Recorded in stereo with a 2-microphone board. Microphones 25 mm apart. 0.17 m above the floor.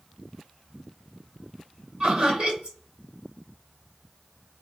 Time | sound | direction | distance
2.0 | laughter | 40° right (ahead or behind) | 1.6 m